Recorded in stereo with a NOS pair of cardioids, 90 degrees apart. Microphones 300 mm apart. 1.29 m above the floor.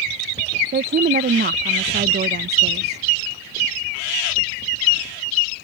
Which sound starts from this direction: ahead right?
A woman speaking, at 0.7 s.